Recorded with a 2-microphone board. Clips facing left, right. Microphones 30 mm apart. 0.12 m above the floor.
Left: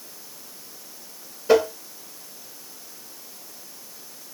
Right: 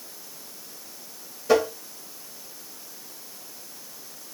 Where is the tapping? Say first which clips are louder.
Left 3 dB; 20° left (ahead or behind), 1.4 m.